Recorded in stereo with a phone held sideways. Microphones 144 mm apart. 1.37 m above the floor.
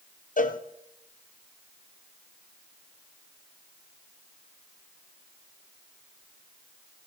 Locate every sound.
0.4 s a cowbell: 70° left (ahead or behind), 0.6 m